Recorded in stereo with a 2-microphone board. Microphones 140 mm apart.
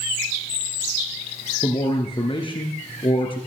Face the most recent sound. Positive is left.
turn(degrees=40)  # may be behind; listen again after turning